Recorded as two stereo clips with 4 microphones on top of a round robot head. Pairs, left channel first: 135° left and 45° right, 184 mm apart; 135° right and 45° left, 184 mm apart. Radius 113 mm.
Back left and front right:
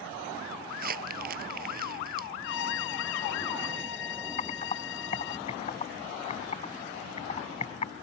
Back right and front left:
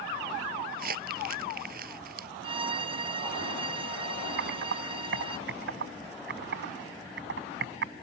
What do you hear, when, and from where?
0.7 s crumpling: straight ahead
2.4 s a violin: 110° left
4.4 s typing on a keyboard: 75° left